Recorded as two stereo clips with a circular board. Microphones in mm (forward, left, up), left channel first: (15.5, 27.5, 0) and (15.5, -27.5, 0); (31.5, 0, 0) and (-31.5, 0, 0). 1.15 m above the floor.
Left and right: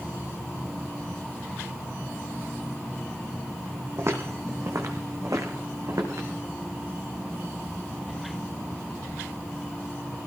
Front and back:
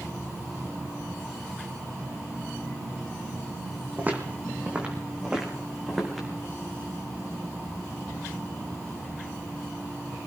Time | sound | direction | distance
4.0 | footsteps | 120° right | 3.5 m